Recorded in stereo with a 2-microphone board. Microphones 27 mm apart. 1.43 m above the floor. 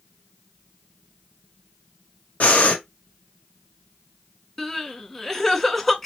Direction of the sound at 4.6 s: 10° left (ahead or behind).